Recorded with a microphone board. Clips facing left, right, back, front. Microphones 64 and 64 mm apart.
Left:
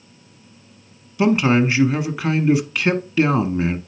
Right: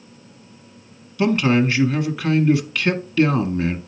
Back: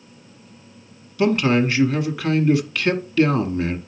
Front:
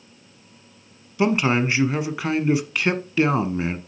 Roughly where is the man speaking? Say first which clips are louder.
Left 1 dB, back 2 dB; ahead left.